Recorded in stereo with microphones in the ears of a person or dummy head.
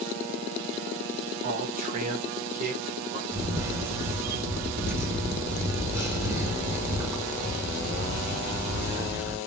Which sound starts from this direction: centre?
A camera shutter, at 3.3 s.